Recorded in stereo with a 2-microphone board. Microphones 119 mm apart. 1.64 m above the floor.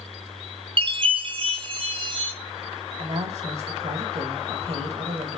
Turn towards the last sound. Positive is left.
turn(degrees=-65)  # may be behind; listen again after turning